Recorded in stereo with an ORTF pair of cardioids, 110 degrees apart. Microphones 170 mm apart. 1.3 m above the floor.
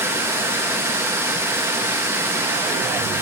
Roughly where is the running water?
Ahead.